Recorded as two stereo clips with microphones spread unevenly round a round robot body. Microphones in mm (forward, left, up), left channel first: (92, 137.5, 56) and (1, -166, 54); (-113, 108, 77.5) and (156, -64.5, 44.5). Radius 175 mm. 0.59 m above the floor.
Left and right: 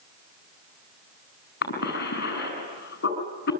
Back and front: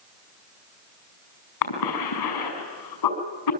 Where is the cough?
135° left, 6 m.